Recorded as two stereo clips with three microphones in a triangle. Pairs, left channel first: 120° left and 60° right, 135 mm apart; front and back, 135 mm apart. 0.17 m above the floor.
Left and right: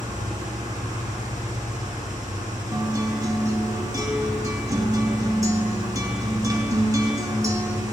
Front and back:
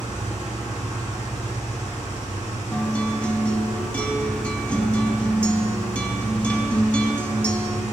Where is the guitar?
70° right, 0.7 m.